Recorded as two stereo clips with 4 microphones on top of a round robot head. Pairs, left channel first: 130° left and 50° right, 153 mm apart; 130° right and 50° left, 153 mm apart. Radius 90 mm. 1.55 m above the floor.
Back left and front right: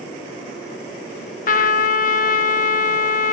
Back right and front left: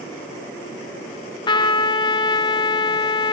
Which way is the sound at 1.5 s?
170° left.